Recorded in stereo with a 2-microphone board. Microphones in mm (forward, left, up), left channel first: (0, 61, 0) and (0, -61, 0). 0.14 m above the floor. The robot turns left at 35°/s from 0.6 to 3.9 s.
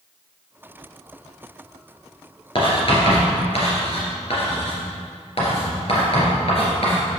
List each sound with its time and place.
2.5 s writing: 45° left (ahead or behind), 2.5 m; by 7.0 s 55° left (ahead or behind), 2.5 m